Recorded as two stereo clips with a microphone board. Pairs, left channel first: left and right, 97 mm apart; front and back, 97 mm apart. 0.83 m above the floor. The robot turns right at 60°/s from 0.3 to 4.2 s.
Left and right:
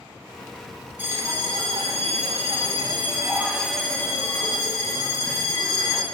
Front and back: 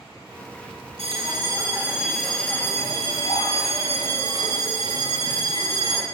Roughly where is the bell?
Behind.